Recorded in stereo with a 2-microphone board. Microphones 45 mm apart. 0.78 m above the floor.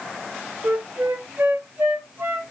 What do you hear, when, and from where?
0.6 s a flute: 50° right (ahead or behind), 0.7 m